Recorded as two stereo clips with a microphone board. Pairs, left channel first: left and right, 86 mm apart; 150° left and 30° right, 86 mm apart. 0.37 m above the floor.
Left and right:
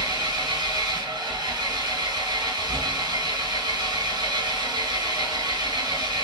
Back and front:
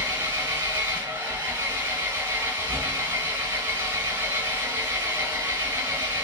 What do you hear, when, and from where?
0.0 s an engine running: 85° right, 3 m